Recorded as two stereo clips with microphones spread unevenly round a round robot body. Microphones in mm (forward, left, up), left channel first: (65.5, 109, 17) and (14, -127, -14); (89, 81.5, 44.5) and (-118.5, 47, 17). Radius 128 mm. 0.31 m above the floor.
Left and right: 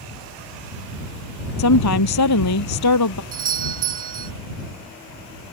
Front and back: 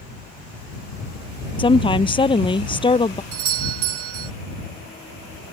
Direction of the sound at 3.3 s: 160° right.